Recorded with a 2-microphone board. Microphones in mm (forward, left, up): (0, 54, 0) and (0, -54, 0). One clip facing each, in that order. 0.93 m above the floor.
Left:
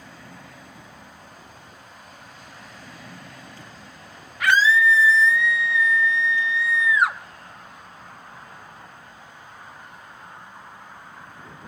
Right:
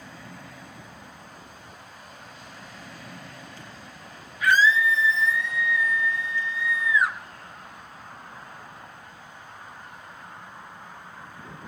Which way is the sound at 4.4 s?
70° left (ahead or behind).